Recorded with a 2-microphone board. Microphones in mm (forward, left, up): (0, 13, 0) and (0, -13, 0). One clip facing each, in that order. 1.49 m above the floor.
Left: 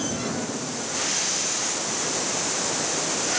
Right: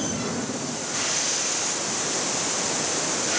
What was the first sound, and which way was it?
Only background noise.